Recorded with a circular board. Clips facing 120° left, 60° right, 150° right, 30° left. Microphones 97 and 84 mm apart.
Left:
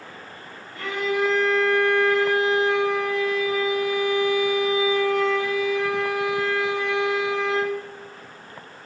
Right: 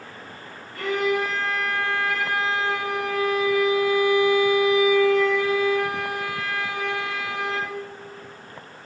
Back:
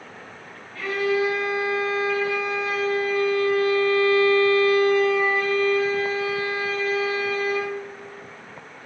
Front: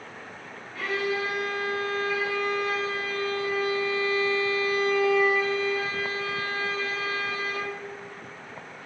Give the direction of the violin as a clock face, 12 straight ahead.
1 o'clock.